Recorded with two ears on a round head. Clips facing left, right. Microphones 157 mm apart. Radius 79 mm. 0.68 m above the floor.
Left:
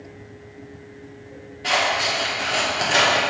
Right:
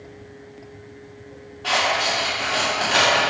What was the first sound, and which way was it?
Scissors, 20° left (ahead or behind).